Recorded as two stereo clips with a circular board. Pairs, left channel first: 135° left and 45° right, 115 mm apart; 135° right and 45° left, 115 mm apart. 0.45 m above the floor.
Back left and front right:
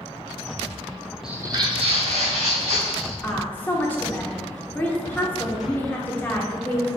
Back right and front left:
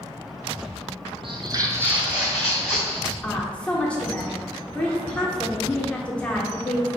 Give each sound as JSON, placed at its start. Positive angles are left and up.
{"t": 1.2, "sound": "footsteps", "azimuth_deg": 40, "distance_m": 0.6}
{"t": 3.2, "sound": "a woman speaking", "azimuth_deg": 165, "distance_m": 0.7}